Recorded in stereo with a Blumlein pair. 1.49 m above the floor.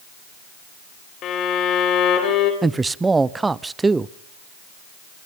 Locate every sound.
1.2 s a violin: 30° left, 4 m
2.6 s a man speaking: 10° right, 0.5 m